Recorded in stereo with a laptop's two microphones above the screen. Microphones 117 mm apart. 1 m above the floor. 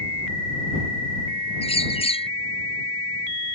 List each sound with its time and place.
1.6 s a bird: 55° left (ahead or behind)